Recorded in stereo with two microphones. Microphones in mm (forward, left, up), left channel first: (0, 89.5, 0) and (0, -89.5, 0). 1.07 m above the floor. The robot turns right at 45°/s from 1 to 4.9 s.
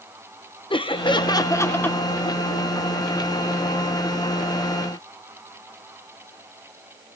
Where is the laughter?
125° left, 0.8 m; by 2.0 s 170° left, 0.8 m.